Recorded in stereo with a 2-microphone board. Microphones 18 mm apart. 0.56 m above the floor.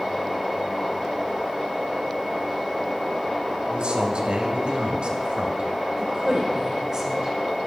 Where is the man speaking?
65° right (ahead or behind), 2.5 m; by 5.7 s 60° right (ahead or behind), 2.5 m.